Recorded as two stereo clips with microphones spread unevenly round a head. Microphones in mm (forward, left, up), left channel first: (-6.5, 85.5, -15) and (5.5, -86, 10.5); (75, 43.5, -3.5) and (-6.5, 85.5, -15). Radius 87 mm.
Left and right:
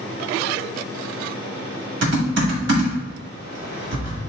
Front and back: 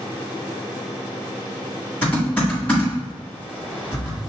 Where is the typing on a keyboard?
110° right, 2 m.